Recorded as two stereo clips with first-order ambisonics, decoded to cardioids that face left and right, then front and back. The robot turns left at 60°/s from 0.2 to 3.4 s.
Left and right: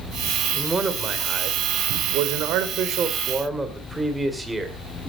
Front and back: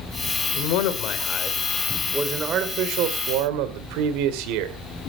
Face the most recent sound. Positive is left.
turn(degrees=-175)